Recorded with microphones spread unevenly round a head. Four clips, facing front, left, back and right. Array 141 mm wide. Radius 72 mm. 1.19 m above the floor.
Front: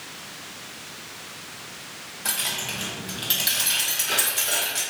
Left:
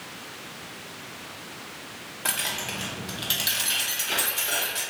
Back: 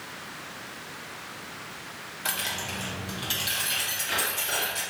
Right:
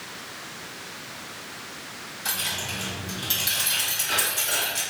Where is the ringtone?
I don't hear a ringtone.